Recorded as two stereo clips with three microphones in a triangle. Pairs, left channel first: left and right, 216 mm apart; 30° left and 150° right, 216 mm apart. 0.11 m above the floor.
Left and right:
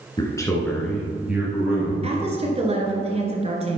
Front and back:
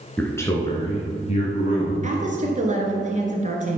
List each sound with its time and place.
0.2 s a man speaking: 100° left, 1.6 m; by 1.9 s 15° right, 3 m
2.0 s a woman speaking: 125° right, 1.7 m